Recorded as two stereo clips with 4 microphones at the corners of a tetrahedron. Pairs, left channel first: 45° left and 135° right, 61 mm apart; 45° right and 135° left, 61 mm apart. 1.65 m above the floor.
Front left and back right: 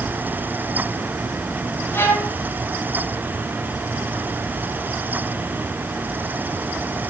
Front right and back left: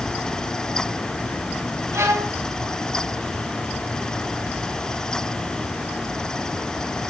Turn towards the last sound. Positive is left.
turn(degrees=100)